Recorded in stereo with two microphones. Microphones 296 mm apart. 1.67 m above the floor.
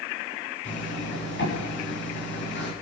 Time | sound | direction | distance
0.7 | a zipper | 40° left (ahead or behind) | 7.5 m